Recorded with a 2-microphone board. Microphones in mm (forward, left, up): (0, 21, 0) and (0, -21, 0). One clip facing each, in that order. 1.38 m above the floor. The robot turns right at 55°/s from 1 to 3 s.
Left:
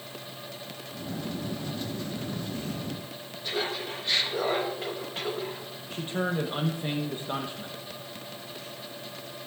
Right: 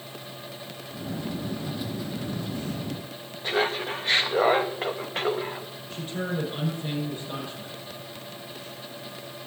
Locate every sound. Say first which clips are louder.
3.4 s laughter: right 6 dB; 40° right (ahead or behind), 0.8 m
5.9 s a man speaking: left 1 dB; 35° left (ahead or behind), 1.0 m